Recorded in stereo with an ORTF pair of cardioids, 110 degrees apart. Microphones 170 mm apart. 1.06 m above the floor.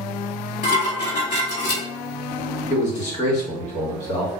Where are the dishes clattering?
45° left, 1.9 m.